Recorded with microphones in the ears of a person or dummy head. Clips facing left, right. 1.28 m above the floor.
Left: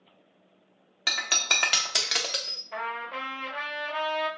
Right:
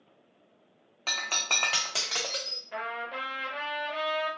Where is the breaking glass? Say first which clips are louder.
Left 2 dB; 20° left (ahead or behind), 0.5 m.